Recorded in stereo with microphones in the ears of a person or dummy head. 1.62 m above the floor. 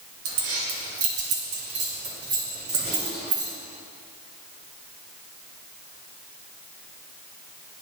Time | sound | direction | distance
0.2 | keys jangling | 65° right (ahead or behind) | 1.6 m